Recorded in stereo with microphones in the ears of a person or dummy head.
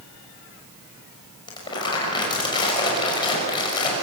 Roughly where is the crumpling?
Left.